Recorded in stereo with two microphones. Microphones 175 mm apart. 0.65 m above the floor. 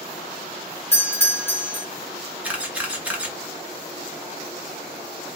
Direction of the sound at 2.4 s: 10° right (ahead or behind).